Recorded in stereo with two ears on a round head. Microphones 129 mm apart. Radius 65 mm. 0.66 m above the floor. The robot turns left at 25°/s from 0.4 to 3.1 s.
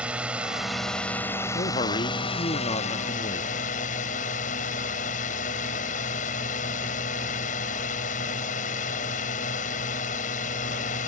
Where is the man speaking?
100° left; by 3.6 s 60° left.